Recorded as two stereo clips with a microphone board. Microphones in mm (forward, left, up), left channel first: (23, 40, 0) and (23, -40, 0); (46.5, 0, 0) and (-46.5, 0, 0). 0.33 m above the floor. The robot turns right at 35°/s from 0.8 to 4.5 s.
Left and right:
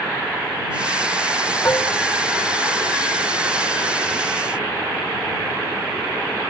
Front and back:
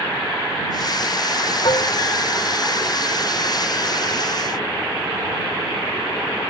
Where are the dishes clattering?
35° left; by 2.0 s 45° left.